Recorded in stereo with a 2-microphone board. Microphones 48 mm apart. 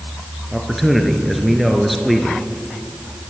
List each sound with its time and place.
0.5 s a man speaking: centre (ahead or behind), 2.5 m